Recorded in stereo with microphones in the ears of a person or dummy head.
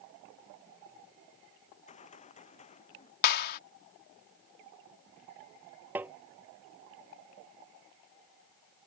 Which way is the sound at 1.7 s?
30° left (ahead or behind).